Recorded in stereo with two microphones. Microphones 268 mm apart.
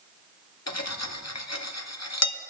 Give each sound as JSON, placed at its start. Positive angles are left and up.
{"t": 0.7, "sound": "cutlery clinking", "side_deg": 75, "distance_m": 0.6}